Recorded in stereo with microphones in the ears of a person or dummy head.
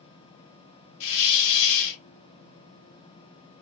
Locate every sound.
1.0 s a hiss: 75° left (ahead or behind), 0.6 m